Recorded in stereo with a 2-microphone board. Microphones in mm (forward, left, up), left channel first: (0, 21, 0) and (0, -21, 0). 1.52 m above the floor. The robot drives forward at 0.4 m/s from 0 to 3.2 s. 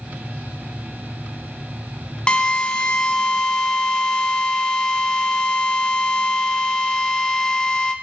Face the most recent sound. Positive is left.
turn(degrees=20)  # may be behind; listen again after turning